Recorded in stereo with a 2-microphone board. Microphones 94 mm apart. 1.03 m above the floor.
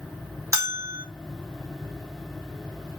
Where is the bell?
30° right (ahead or behind), 2.5 m.